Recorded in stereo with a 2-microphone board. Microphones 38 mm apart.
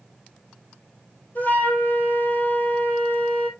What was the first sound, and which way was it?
A flute, 50° left (ahead or behind).